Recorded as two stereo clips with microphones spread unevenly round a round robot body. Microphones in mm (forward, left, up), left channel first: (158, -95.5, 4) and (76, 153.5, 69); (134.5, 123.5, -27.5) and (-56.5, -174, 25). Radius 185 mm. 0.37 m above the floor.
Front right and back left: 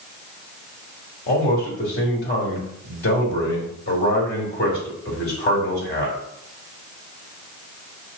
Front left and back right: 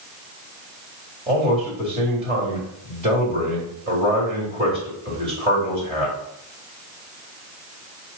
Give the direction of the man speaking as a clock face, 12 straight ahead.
2 o'clock.